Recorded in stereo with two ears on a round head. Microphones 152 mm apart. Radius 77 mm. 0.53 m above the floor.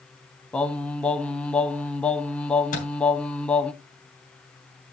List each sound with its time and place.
0.5 s singing: 5° left (ahead or behind), 0.6 m
2.7 s a microwave: 45° left (ahead or behind), 3 m